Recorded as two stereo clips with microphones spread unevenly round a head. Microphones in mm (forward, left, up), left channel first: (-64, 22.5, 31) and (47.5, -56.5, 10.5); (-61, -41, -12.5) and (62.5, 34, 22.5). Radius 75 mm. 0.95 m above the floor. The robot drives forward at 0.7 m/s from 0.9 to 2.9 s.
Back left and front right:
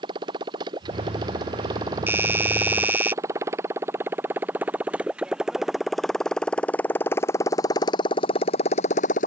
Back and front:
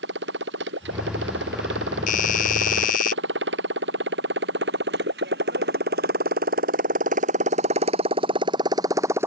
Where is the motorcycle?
25° left; by 9.3 s 105° left.